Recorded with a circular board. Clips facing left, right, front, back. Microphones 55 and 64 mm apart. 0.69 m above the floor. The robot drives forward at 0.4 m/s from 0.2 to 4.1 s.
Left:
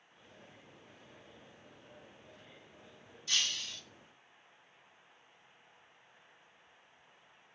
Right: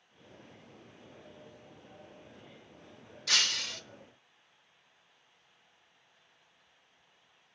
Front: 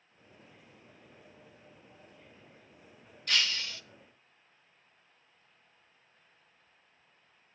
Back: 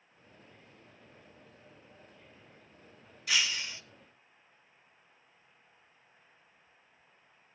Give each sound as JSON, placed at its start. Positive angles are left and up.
{"t": 3.3, "sound": "breaking glass", "azimuth_deg": -100, "distance_m": 0.9}